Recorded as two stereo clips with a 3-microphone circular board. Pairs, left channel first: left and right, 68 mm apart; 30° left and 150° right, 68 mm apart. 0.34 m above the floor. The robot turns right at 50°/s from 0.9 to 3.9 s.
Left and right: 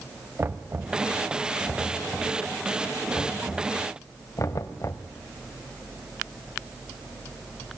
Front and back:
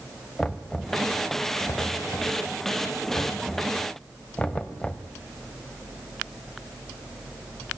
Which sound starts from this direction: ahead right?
Knocking, at 0.4 s.